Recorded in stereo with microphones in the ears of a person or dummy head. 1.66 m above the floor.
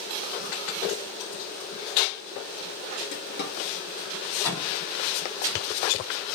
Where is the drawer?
50° left (ahead or behind), 2 m.